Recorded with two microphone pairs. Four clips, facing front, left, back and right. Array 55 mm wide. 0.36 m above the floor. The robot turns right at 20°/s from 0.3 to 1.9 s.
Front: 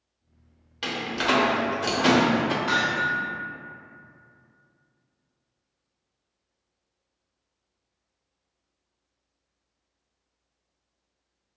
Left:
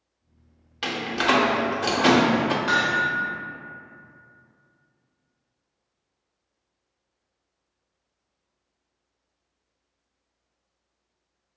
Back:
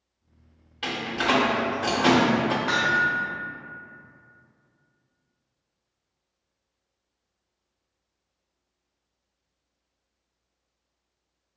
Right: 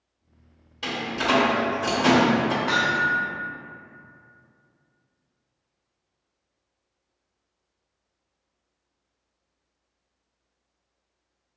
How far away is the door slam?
About 0.6 m.